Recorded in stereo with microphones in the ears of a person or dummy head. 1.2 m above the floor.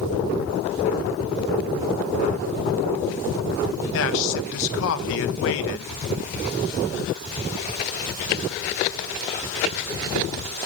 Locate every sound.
3.9 s a man speaking: 65° left (ahead or behind), 1.2 m